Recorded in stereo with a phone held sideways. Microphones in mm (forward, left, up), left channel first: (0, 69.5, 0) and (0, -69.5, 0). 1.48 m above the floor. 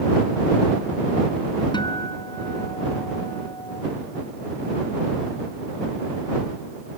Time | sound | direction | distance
1.7 | a guitar | 30° left (ahead or behind) | ?